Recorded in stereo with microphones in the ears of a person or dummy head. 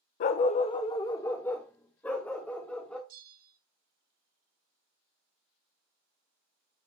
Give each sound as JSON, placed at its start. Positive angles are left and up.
{"t": 0.2, "sound": "a dog barking", "side_deg": 45, "distance_m": 0.6}
{"t": 3.1, "sound": "a bell", "side_deg": -35, "distance_m": 0.8}